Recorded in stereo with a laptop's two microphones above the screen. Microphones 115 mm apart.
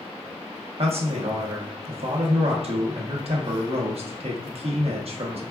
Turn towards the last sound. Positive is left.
turn(degrees=-60)  # may be behind; listen again after turning